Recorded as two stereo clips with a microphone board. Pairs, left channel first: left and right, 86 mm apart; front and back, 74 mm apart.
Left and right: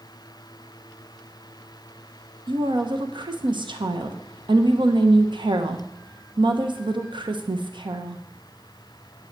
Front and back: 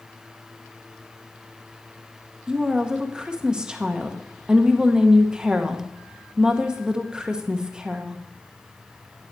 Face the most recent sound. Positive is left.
turn(degrees=-105)